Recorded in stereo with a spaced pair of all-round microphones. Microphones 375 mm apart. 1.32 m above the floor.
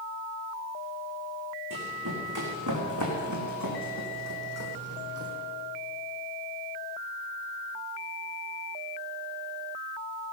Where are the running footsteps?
55° right (ahead or behind), 4 m; by 5.3 s 35° right (ahead or behind), 2.5 m.